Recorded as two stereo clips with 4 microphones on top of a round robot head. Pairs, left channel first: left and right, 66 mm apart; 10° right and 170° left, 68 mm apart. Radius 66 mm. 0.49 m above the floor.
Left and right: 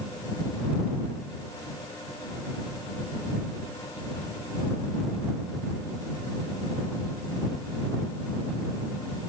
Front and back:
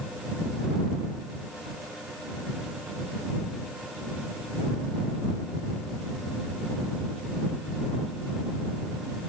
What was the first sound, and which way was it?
Only background noise.